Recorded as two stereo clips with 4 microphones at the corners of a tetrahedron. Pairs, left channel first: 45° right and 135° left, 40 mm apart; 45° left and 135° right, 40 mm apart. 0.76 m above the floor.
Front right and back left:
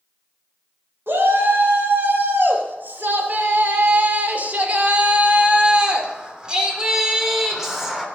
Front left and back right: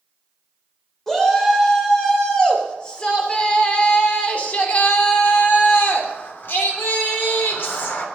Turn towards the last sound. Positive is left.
turn(degrees=45)